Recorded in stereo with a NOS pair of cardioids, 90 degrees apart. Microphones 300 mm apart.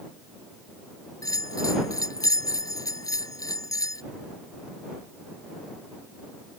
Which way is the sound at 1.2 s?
10° left.